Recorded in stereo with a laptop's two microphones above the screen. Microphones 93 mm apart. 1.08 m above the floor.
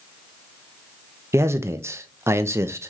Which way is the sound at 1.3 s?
30° right (ahead or behind).